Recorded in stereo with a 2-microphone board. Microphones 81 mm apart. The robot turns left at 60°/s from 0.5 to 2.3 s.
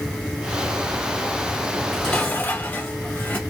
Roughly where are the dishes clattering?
Behind.